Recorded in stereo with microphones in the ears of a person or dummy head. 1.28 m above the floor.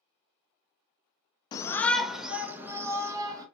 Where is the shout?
30° left (ahead or behind), 0.7 m; by 3.5 s 15° right (ahead or behind), 1.9 m.